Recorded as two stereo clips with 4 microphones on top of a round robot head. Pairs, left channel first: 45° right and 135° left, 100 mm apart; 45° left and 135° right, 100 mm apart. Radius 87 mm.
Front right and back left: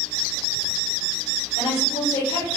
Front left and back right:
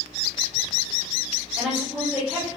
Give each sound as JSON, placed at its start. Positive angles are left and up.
{"t": 1.6, "sound": "a woman speaking", "azimuth_deg": -60, "distance_m": 5.0}